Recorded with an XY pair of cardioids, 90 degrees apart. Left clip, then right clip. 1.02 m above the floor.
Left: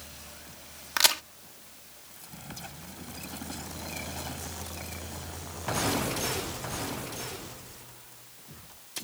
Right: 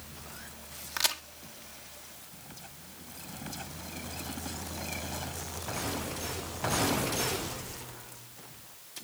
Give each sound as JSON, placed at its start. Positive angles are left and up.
{"t": 1.0, "sound": "a crack", "azimuth_deg": 50}